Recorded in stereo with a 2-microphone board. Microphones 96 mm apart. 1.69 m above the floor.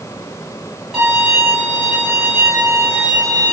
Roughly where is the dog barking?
I don't hear a dog barking.